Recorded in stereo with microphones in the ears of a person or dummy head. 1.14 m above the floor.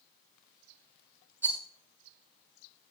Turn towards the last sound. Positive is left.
turn(degrees=-15)  # may be behind; listen again after turning